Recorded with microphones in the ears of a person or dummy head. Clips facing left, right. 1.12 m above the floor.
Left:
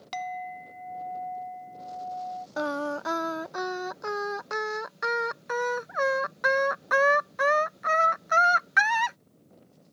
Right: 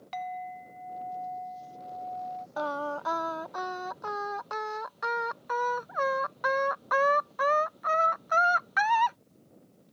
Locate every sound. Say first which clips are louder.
0.1 s a clink: left 2 dB; 65° left (ahead or behind)
2.6 s singing: left 3 dB; 30° left (ahead or behind)